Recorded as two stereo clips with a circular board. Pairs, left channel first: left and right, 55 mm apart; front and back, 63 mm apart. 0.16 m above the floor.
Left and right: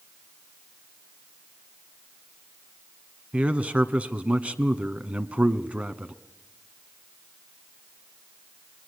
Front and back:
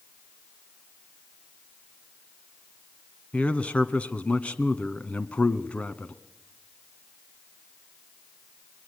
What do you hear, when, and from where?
3.3 s a man speaking: 50° right, 1.4 m